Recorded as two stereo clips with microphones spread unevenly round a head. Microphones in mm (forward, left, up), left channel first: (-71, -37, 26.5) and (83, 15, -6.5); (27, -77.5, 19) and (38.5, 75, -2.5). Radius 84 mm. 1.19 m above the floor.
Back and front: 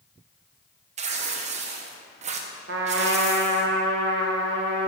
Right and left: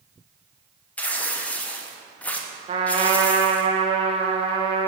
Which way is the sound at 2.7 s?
35° left.